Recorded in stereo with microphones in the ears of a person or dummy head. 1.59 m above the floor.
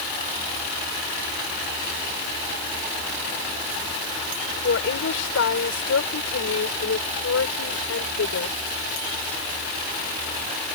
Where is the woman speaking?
75° left (ahead or behind).